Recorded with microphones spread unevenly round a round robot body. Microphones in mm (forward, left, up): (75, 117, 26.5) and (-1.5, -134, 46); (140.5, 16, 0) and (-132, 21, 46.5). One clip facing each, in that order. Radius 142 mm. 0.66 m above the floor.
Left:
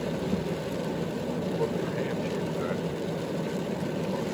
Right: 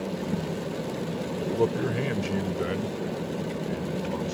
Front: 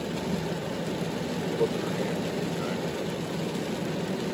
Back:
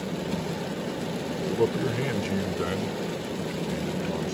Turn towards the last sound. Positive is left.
turn(degrees=-170)